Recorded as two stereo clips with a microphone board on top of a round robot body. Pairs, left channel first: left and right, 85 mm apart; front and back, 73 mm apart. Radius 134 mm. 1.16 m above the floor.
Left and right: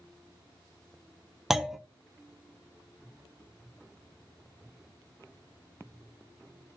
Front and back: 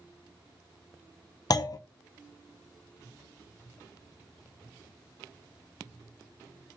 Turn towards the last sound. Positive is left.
turn(degrees=-5)